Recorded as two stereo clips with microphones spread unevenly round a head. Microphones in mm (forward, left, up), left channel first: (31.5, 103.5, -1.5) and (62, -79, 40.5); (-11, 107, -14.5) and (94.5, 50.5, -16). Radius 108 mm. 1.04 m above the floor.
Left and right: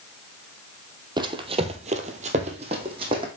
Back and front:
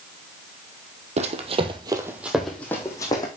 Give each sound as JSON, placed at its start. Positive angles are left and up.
{"t": 1.2, "sound": "running footsteps", "azimuth_deg": -30, "distance_m": 1.7}